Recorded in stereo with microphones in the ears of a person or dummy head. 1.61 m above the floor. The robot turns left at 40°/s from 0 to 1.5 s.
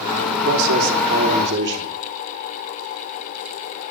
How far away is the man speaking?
About 3 m.